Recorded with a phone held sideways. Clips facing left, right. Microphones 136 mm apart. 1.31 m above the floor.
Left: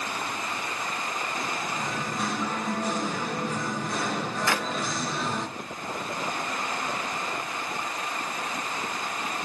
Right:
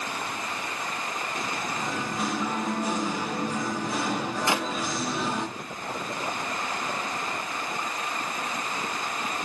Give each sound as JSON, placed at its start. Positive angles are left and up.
{"t": 1.7, "sound": "singing", "side_deg": -5, "distance_m": 2.5}
{"t": 4.5, "sound": "a clap", "side_deg": -20, "distance_m": 0.9}